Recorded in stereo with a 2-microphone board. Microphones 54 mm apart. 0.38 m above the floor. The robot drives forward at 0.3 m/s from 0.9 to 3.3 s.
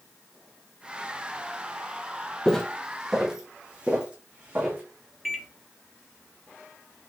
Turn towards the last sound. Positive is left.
turn(degrees=-5)  # may be behind; listen again after turning